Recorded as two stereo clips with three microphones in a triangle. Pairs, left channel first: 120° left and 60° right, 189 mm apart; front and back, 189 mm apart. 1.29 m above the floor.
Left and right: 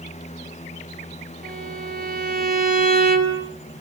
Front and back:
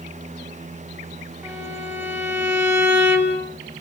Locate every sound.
1.4 s a violin: 95° right, 4 m